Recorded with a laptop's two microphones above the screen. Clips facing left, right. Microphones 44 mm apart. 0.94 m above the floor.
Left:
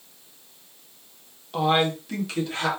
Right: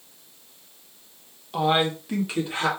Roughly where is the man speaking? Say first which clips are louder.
Even; centre.